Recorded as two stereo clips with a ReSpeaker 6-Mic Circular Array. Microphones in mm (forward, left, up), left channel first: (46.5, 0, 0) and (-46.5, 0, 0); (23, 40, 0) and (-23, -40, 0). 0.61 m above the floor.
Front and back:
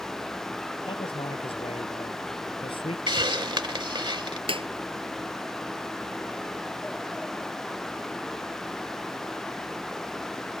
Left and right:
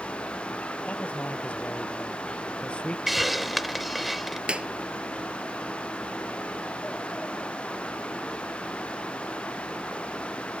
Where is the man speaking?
15° right; by 3.0 s 20° right.